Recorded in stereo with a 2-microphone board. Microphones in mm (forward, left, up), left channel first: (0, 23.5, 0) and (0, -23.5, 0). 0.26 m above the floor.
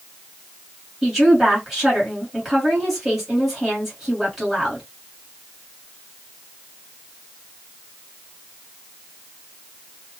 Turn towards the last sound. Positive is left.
turn(degrees=-5)  # may be behind; listen again after turning